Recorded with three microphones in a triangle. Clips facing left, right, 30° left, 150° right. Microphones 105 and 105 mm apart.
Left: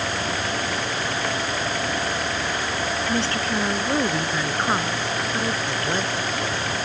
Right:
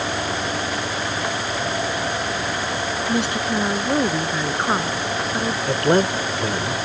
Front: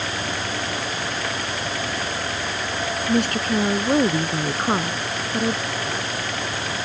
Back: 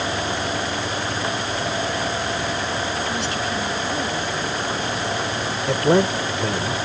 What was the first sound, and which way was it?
A woman speaking, 15° right.